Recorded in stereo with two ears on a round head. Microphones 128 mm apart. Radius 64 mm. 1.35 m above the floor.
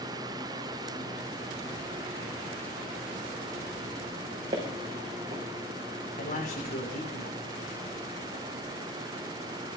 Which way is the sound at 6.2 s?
60° left (ahead or behind).